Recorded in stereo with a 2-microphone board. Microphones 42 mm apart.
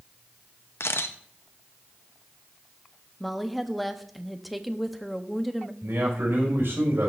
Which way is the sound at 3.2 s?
Centre (ahead or behind).